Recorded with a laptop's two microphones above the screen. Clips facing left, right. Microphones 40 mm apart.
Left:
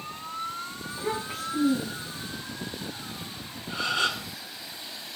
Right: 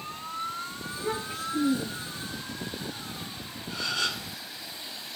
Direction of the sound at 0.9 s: 15° left (ahead or behind).